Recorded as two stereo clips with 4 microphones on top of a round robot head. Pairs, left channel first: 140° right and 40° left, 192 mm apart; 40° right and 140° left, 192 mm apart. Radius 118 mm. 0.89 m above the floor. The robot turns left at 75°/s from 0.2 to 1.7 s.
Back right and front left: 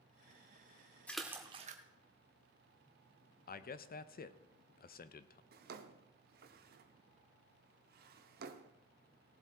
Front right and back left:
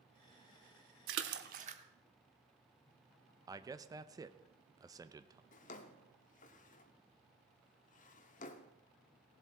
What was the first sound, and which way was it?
A splash, 140° left.